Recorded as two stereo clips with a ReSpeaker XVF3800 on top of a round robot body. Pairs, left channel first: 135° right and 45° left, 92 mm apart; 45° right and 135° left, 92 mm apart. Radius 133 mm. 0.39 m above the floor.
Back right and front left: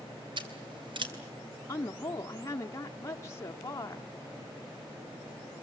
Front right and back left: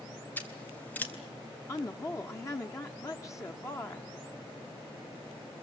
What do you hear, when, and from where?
0.4 s scissors: 25° left, 3.5 m
1.7 s a woman speaking: 90° right, 1.3 m